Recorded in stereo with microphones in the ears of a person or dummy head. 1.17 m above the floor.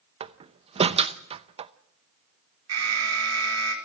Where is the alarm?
80° right, 4.5 m.